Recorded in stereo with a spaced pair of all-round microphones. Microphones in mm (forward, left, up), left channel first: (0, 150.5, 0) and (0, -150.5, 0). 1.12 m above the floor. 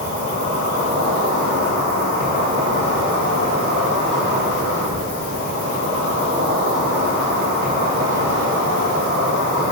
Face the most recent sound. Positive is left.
turn(degrees=-45)  # may be behind; listen again after turning